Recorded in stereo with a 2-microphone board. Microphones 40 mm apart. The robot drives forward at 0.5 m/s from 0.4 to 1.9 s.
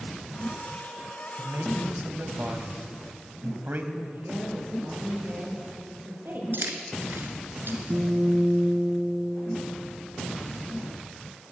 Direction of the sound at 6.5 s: 65° right (ahead or behind).